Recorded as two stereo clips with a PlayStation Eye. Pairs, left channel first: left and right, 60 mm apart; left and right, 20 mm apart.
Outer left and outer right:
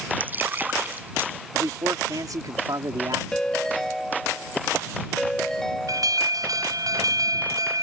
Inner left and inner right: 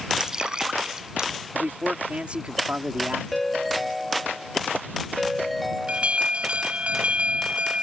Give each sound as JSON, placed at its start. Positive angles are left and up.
{"t": 0.2, "sound": "dripping", "side_deg": -30}
{"t": 1.5, "sound": "a man speaking", "side_deg": -85}
{"t": 3.3, "sound": "a ringtone", "side_deg": 10}
{"t": 5.9, "sound": "an alarm", "side_deg": -80}